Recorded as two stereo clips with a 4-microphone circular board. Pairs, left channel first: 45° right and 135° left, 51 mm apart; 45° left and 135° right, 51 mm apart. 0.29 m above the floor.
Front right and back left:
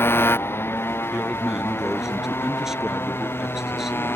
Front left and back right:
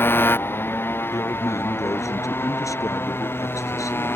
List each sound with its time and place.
0.0 s a motorcycle: 5° right; by 4.2 s straight ahead
1.1 s a man speaking: 55° left